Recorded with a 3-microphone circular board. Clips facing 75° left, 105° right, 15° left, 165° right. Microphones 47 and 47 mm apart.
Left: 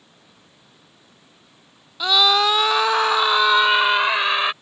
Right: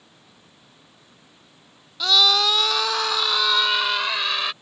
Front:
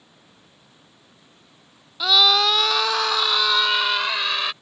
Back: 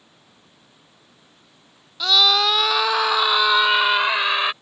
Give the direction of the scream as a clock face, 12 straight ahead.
10 o'clock.